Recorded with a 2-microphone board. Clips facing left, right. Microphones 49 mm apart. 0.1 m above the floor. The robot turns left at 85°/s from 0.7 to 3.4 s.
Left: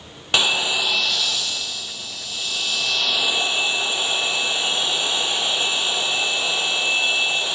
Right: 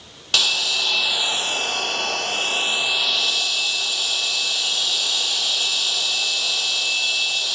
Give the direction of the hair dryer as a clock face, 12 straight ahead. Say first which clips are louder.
Left 2 dB; 11 o'clock.